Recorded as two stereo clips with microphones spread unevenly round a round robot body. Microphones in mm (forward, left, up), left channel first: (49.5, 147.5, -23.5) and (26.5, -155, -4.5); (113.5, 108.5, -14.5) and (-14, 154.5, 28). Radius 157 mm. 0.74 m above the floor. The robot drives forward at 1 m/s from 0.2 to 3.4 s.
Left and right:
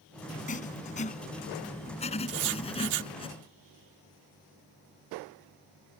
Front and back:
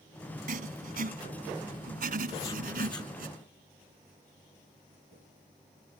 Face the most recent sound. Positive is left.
turn(degrees=-110)